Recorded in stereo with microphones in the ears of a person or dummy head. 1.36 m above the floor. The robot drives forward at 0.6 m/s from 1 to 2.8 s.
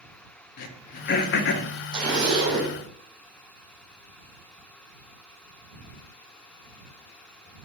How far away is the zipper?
About 2.5 m.